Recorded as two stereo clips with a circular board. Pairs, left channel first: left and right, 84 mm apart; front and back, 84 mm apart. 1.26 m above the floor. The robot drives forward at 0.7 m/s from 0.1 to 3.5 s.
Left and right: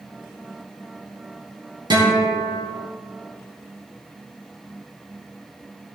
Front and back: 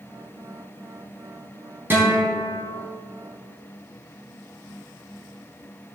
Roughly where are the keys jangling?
I don't hear keys jangling.